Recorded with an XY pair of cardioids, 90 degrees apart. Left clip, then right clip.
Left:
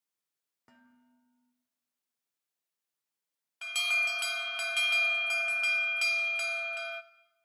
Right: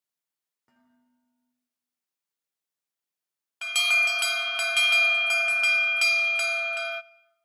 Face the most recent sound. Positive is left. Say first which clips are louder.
# right 7 dB
turn(degrees=-55)